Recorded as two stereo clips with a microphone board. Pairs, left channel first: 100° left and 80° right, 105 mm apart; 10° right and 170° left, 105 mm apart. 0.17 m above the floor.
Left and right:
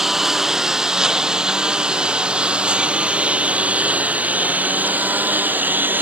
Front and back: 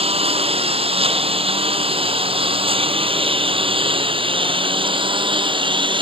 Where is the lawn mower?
165° right; by 6.0 s 150° right.